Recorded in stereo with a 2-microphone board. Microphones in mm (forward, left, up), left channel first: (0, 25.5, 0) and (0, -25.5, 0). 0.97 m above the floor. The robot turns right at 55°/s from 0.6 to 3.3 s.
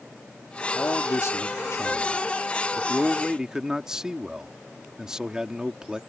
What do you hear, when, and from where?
0.8 s a man speaking: 50° left; by 6.0 s 165° right